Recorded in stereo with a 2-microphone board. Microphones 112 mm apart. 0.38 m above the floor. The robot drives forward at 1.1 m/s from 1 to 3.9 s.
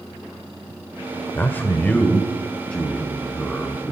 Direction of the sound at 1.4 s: 20° left (ahead or behind).